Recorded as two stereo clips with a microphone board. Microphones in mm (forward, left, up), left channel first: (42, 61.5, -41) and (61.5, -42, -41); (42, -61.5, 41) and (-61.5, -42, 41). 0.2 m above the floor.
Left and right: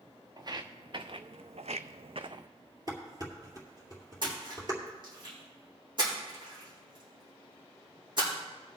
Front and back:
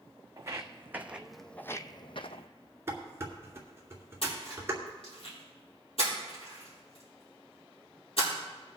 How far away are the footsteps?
About 1.0 m.